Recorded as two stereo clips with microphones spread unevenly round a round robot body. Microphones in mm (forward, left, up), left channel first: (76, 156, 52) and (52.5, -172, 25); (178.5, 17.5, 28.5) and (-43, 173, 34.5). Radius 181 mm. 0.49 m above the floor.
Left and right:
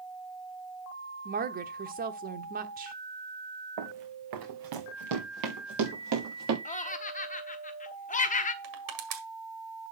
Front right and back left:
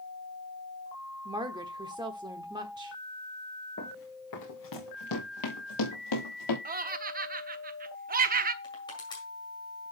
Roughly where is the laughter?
Behind left.